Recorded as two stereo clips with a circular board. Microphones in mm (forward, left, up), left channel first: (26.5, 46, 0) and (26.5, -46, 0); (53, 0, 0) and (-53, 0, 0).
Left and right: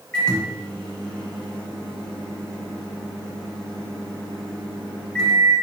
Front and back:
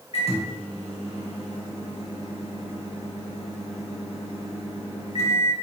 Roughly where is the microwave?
Ahead.